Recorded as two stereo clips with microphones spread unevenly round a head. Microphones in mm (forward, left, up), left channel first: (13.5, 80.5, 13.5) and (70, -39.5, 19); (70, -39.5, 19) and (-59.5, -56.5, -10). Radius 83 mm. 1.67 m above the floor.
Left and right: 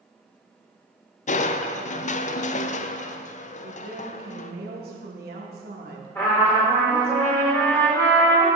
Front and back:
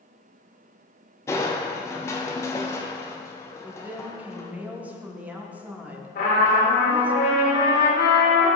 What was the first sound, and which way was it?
Crushing, 85° left.